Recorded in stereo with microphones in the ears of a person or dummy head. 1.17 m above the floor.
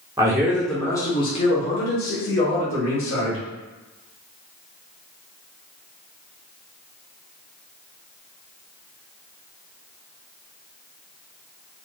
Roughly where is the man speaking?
Centre.